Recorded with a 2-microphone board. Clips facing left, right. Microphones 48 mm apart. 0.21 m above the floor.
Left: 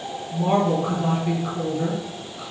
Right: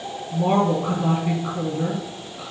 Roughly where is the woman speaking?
Centre.